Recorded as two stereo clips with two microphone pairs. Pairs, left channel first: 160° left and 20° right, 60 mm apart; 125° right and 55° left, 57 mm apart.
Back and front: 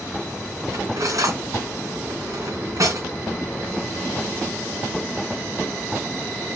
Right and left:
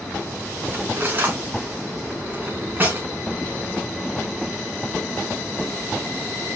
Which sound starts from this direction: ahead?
Cutlery clinking, at 0.7 s.